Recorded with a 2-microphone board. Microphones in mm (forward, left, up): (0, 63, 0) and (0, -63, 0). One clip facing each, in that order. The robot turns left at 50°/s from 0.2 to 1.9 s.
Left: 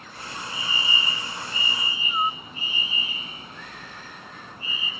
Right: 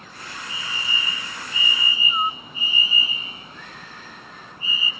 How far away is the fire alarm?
About 3 m.